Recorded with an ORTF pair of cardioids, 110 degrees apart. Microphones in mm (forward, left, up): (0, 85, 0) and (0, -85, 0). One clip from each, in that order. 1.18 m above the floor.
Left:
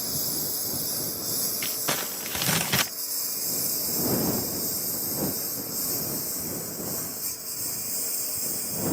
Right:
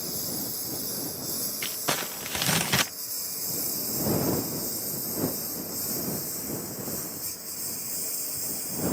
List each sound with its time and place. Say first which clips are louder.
0.0 s a lawn mower: left 3 dB; 25° left; by 8.9 s 15° left
1.6 s crumpling: right 2 dB; straight ahead